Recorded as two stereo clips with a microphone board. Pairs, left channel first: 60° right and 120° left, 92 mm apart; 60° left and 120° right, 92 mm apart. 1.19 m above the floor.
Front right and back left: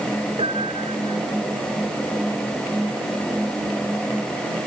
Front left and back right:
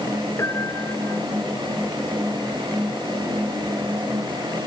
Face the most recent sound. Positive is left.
turn(degrees=120)